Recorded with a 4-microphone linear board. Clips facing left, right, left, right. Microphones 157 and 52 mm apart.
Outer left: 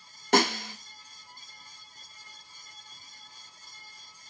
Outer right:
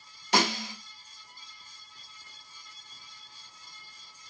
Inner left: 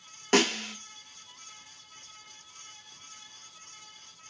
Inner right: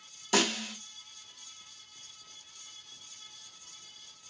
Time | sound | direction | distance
0.3 | a snare drum | 50° left (ahead or behind) | 0.9 m